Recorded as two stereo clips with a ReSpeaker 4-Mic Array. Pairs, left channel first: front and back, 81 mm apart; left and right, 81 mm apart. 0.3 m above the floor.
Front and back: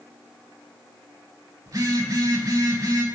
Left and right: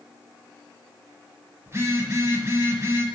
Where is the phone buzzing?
145° right, 0.5 m.